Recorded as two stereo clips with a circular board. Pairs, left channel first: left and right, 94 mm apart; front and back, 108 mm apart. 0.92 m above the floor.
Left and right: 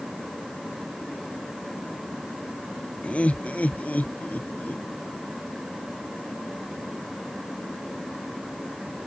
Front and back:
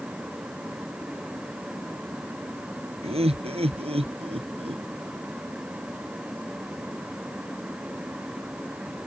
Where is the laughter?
165° left; by 4.8 s 160° left.